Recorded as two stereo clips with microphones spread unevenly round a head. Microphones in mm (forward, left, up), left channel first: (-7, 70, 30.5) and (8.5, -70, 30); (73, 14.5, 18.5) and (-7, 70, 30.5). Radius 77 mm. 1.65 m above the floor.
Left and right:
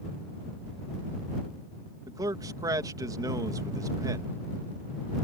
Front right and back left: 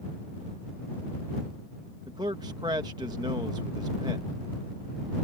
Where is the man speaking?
150° right.